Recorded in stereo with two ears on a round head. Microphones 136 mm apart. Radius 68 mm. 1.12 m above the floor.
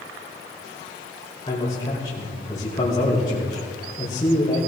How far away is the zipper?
I don't hear a zipper.